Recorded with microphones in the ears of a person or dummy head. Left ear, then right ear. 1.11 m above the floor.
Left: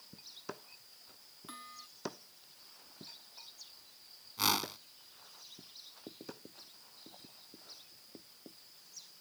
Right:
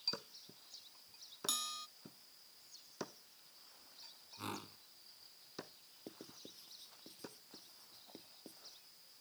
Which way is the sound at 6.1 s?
30° right (ahead or behind).